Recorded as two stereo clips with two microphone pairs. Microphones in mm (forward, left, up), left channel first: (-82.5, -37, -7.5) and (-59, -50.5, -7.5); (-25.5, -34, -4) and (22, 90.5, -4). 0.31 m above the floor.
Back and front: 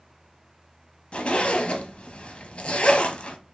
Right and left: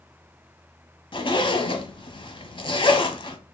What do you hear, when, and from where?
1.1 s a zipper: 160° right, 0.7 m